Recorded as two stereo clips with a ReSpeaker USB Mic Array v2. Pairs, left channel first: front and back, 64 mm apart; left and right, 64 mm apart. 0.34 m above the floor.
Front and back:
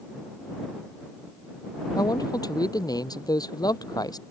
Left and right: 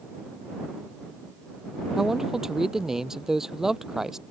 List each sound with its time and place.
2.0 s a man speaking: 5° right